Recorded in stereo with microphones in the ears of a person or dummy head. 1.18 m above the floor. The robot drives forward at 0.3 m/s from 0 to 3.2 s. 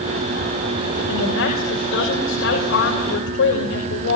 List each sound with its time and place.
1.1 s a woman speaking: 75° left (ahead or behind), 6 m; by 4.2 s 70° left (ahead or behind), 6 m